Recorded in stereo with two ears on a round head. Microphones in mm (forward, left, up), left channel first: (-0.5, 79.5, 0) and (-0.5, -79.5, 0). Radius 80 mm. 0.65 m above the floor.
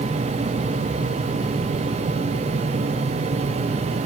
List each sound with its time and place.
Only background noise.